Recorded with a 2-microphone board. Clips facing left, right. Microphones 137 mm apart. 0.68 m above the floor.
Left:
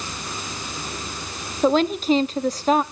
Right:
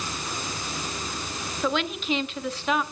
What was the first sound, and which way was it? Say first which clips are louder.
A woman speaking: left 9 dB; 35° left (ahead or behind).